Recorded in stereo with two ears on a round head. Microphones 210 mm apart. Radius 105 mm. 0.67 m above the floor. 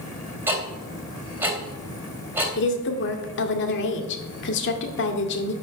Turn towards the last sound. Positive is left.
turn(degrees=50)  # may be behind; listen again after turning